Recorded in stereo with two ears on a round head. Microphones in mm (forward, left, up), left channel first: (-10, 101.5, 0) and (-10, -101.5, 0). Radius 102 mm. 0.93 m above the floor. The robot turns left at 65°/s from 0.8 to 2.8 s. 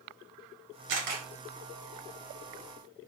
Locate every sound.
0.9 s a camera shutter: 60° right (ahead or behind), 1.7 m; by 1.2 s 45° right (ahead or behind), 1.7 m